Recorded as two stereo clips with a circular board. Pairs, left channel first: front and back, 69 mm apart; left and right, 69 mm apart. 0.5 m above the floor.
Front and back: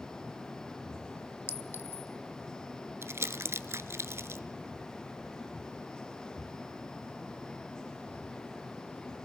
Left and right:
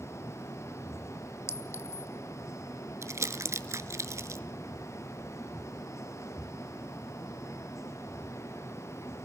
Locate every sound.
1.5 s a clink: 50° left, 1.5 m
3.0 s crumpling: 135° right, 1.1 m